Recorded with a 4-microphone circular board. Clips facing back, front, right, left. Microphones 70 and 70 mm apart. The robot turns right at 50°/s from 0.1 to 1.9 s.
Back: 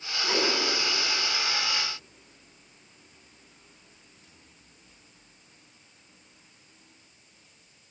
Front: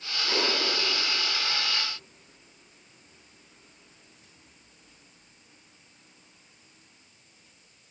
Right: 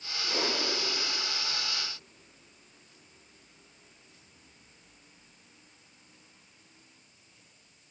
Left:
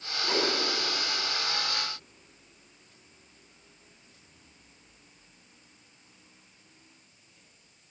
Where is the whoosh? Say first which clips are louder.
Back 1 dB, left 4 dB; 100° left, 4 m; by 0.5 s 115° left, 4 m.